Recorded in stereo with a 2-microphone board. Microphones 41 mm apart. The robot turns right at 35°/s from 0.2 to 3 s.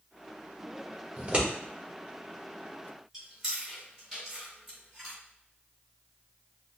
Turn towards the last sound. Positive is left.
turn(degrees=-5)  # may be behind; listen again after turning